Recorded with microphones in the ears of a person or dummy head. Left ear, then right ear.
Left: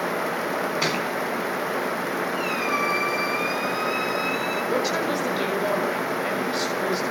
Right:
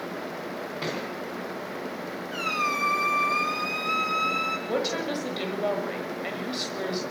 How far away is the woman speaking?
About 7 m.